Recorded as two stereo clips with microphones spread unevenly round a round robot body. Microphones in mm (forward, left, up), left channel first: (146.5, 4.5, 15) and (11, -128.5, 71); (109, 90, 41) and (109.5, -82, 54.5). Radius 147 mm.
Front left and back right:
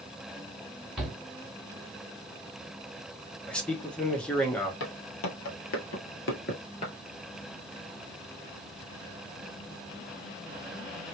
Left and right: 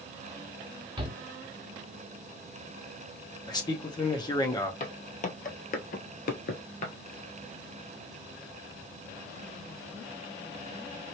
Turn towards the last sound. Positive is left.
turn(degrees=130)